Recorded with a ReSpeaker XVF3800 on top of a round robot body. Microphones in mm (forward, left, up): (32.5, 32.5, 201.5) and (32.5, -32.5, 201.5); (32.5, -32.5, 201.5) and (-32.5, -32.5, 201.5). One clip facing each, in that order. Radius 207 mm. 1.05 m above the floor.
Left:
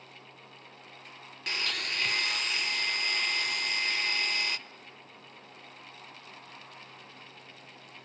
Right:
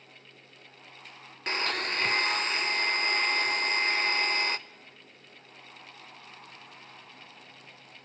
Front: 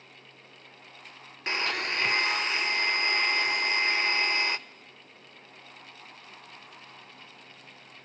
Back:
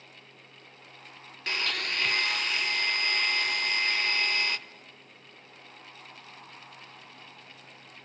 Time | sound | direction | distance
1.5 | a blender | 55° right | 0.9 m